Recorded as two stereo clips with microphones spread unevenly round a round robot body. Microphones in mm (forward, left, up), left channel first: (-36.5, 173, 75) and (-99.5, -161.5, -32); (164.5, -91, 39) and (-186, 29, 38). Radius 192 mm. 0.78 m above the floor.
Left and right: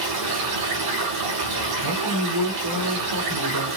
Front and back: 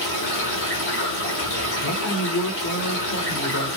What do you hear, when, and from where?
0.0 s running water: 75° right, 7.5 m
1.8 s a man speaking: 70° right, 2.5 m